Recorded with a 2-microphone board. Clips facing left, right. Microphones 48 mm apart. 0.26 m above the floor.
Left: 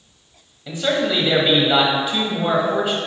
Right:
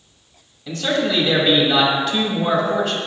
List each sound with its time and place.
0.7 s a man speaking: 15° left (ahead or behind), 1.0 m